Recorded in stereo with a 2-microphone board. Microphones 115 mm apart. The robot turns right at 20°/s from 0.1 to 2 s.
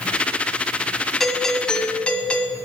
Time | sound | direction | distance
1.2 | a doorbell | centre (ahead or behind) | 1.5 m